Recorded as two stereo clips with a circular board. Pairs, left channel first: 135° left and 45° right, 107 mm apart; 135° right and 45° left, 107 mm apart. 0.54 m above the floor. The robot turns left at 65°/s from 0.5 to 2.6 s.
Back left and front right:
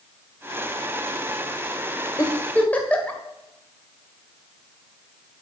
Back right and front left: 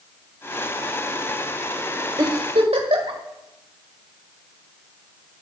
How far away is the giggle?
About 1.7 m.